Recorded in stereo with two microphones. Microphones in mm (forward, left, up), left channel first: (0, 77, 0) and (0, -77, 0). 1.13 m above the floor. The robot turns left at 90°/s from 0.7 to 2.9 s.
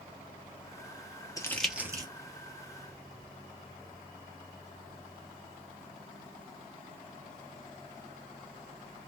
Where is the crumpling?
20° left (ahead or behind), 0.7 m; by 2.1 s 30° right (ahead or behind), 0.7 m.